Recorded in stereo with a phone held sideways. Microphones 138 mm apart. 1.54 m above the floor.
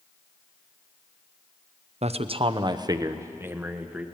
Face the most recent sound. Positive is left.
turn(degrees=-10)  # may be behind; listen again after turning